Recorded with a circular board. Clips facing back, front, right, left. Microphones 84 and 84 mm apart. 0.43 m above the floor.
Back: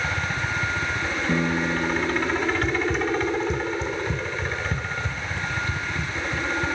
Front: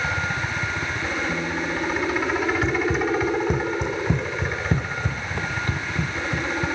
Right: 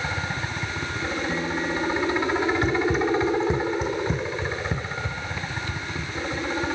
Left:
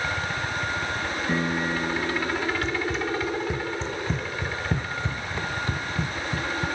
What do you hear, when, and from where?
0.0 s a helicopter: 70° right
1.3 s a piano: 150° left
2.6 s running footsteps: 55° right; by 6.7 s 45° left